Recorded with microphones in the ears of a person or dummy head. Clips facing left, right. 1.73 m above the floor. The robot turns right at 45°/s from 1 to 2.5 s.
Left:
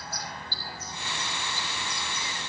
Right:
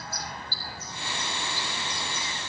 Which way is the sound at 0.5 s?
10° right (ahead or behind).